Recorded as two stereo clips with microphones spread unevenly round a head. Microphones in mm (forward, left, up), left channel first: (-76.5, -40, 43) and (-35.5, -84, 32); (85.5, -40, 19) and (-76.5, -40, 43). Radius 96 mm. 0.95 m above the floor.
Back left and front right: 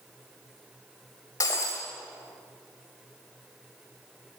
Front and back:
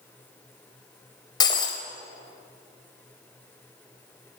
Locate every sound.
1.4 s breaking glass: 70° left, 2.5 m